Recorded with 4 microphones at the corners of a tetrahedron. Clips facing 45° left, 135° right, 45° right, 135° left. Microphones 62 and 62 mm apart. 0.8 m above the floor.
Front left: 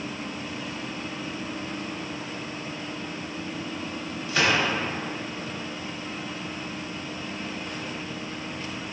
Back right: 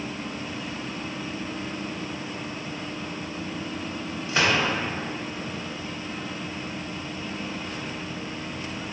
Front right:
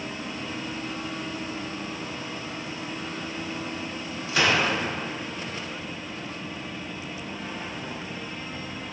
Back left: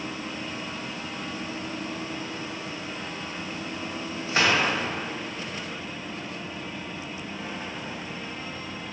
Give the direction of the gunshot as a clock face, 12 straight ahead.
6 o'clock.